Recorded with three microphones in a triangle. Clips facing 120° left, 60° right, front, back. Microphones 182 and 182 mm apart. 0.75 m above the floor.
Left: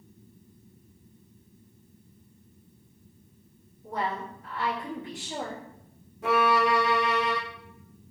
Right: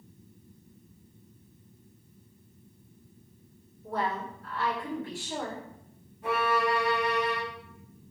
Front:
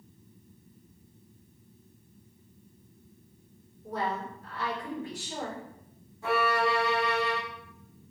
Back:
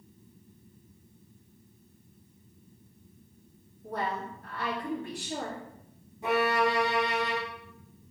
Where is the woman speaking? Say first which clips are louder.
Even, front 1 dB; 170° right, 1.8 m.